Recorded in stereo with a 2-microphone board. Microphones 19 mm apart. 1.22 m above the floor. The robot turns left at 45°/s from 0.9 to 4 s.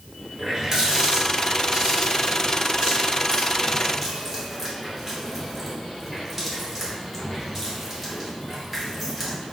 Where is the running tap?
35° right (ahead or behind), 2.5 m; by 9.4 s 5° right (ahead or behind), 2.5 m.